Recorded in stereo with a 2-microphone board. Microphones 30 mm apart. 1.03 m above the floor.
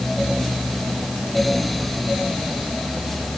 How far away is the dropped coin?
I don't hear a dropped coin.